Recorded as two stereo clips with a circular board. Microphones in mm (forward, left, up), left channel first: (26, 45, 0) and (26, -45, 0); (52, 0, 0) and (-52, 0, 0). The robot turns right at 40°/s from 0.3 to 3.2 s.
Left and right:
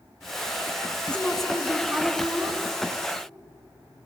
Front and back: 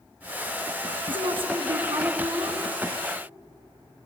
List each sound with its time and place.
1.1 s a woman speaking: 165° left, 2 m; by 2.6 s 135° right, 2 m